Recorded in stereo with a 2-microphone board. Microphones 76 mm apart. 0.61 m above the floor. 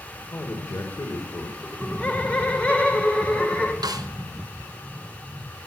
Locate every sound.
0.3 s a man speaking: 50° left (ahead or behind), 2.5 m
1.6 s laughter: 15° left (ahead or behind), 2.5 m
3.8 s a snare drum: 70° right (ahead or behind), 1.1 m